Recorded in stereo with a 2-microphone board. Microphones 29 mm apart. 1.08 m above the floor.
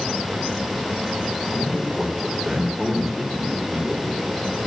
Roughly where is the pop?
No pop in this recording.